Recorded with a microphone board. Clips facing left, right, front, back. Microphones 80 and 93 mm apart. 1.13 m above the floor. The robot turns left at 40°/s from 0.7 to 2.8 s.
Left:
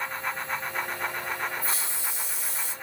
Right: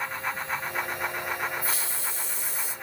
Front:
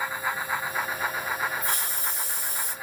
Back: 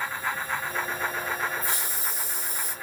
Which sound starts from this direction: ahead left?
A hiss, at 1.6 s.